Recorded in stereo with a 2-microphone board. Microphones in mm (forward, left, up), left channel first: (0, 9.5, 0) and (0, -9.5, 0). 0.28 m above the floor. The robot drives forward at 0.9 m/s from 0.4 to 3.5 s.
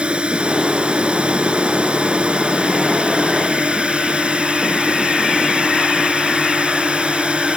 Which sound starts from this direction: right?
A drone, at 0.0 s.